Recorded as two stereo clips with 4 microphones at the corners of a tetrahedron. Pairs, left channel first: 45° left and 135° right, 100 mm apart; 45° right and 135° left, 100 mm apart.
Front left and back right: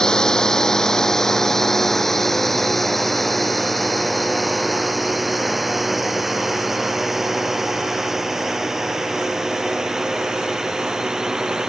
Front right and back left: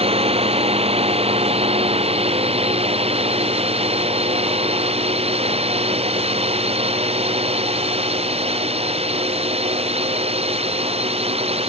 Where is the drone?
130° left; by 11.7 s 140° left.